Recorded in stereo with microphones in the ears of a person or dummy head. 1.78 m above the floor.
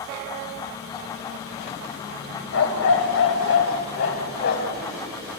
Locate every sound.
2.5 s a dog barking: 60° left (ahead or behind), 3 m; by 4.8 s 50° left (ahead or behind), 4.5 m